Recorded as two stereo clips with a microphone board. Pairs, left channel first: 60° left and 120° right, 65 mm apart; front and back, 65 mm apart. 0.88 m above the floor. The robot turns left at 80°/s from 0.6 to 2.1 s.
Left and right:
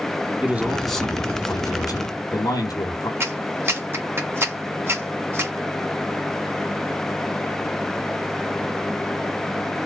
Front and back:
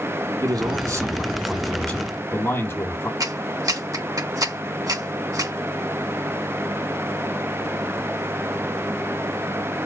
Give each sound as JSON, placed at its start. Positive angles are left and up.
{"t": 0.4, "sound": "a man speaking", "azimuth_deg": 170, "distance_m": 3.0}
{"t": 3.2, "sound": "a clap", "azimuth_deg": -170, "distance_m": 1.9}